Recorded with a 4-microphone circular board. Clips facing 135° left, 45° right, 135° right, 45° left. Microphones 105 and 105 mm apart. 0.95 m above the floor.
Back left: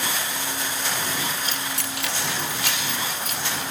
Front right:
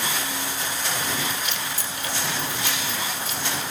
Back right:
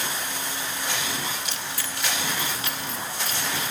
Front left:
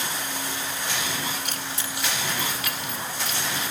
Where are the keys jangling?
80° left, 0.9 m; by 3.7 s straight behind, 3 m.